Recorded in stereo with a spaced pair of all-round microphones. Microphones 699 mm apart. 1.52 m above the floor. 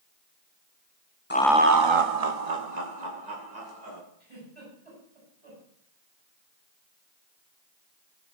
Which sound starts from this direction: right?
A giggle, at 4.2 s.